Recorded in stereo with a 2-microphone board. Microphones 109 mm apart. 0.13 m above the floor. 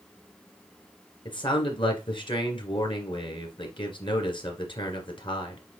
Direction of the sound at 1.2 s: 45° left (ahead or behind).